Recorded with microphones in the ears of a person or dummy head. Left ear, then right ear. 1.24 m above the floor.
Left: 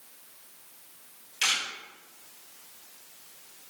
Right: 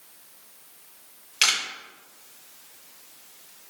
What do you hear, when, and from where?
1.4 s a camera shutter: 70° right (ahead or behind), 0.9 m